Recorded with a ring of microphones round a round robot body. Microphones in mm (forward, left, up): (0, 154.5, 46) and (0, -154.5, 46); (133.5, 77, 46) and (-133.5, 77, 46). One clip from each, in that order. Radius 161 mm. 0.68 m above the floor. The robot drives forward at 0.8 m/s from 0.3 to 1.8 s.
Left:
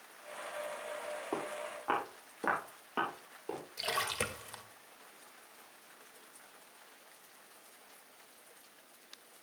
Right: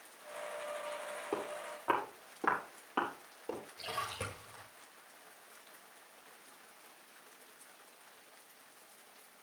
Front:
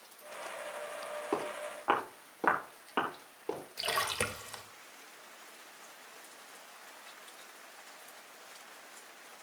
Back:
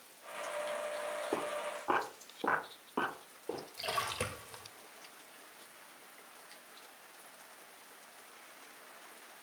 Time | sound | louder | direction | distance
1.3 | footsteps | right 1 dB, even | 15° right | 7 m
3.8 | a splash | left 6 dB, front 4 dB | 50° left | 1.9 m